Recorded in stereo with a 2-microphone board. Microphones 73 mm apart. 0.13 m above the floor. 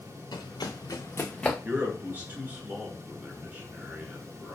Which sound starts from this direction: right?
A man speaking, at 1.6 s.